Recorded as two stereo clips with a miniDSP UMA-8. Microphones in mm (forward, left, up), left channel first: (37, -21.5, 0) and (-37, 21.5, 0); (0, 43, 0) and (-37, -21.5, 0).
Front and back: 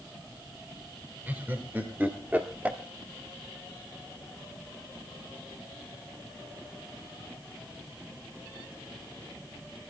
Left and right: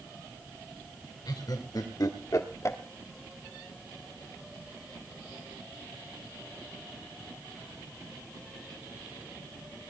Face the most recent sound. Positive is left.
turn(degrees=85)